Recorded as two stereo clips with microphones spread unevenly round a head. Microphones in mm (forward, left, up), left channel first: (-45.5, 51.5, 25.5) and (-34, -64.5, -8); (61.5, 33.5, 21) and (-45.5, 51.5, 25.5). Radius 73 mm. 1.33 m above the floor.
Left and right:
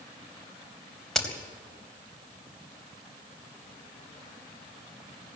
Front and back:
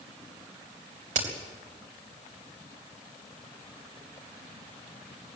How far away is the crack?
About 3.5 m.